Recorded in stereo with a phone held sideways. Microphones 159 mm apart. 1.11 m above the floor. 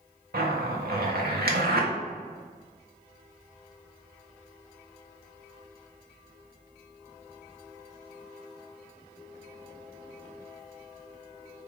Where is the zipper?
75° right (ahead or behind), 1.7 m.